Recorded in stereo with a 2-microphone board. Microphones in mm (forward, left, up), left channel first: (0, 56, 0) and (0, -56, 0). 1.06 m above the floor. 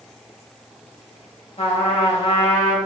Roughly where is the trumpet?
Left.